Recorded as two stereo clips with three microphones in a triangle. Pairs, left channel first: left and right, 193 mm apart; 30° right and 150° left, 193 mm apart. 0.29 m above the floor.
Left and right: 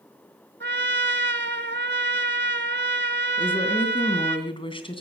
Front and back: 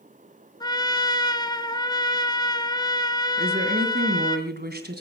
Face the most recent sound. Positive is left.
turn(degrees=145)